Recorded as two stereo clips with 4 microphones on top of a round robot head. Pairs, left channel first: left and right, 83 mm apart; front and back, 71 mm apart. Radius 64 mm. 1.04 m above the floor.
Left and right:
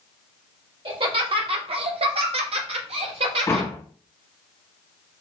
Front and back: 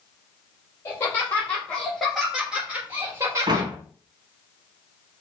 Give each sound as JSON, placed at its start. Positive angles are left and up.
{"t": 0.8, "sound": "laughter", "azimuth_deg": -65, "distance_m": 1.6}
{"t": 3.5, "sound": "a door slam", "azimuth_deg": 155, "distance_m": 1.1}